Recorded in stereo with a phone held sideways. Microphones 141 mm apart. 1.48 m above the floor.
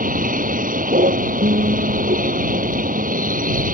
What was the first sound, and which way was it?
A vehicle, 70° right (ahead or behind).